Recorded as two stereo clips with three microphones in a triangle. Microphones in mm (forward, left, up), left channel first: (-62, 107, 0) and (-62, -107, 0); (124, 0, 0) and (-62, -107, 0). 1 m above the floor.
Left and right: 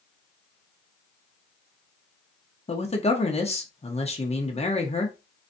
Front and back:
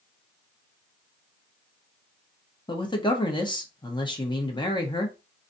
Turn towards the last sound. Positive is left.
turn(degrees=75)